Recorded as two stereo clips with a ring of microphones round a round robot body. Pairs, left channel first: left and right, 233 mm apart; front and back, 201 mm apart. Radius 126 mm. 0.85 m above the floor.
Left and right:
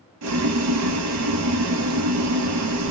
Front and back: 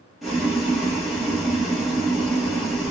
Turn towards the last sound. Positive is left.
turn(degrees=-90)